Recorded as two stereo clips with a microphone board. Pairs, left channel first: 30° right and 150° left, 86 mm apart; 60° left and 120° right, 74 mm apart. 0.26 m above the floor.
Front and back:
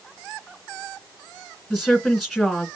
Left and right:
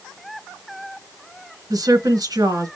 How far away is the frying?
No frying in this recording.